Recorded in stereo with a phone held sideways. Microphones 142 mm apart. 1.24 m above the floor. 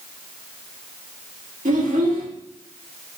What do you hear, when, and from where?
1.6 s a child speaking: 65° right (ahead or behind), 1.3 m